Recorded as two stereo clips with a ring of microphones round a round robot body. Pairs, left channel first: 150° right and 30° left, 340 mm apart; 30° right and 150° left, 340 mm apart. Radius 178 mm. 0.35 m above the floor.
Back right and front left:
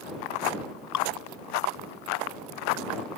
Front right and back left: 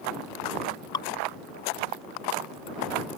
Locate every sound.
0.9 s dripping: 110° right